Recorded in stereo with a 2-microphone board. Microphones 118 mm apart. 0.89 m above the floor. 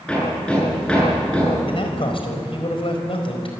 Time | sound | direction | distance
0.1 | hammering | 10° left (ahead or behind) | 10 m
1.6 | a man speaking | 55° left (ahead or behind) | 4.5 m